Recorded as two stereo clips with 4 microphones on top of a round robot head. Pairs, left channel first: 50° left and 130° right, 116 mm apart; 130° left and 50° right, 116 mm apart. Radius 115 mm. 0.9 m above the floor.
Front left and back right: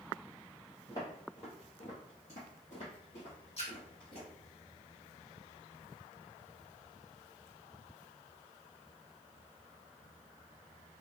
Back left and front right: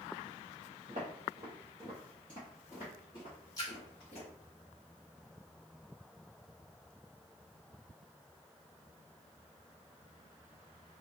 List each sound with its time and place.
0.9 s footsteps: 10° right, 1.1 m; by 4.3 s 95° left, 1.7 m
3.6 s a splash: 75° left, 1.5 m